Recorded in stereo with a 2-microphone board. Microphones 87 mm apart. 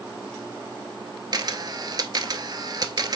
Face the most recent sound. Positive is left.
turn(degrees=-45)  # may be behind; listen again after turning